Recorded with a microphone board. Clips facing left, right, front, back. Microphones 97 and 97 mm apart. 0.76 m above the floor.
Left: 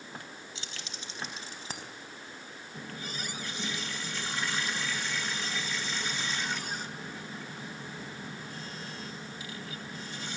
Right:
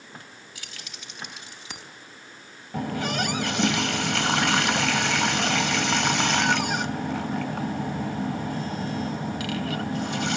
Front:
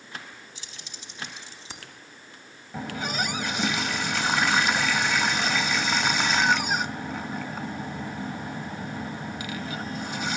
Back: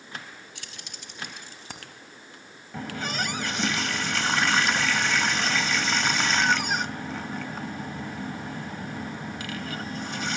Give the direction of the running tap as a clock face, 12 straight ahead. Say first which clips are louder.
Right 15 dB, front 1 dB; 3 o'clock.